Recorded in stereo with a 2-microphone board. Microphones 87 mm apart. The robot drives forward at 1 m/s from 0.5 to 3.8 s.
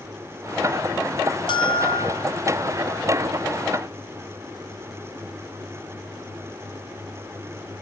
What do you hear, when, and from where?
1.5 s a bell: 75° left (ahead or behind), 4 m; by 2.2 s 85° left, 3.5 m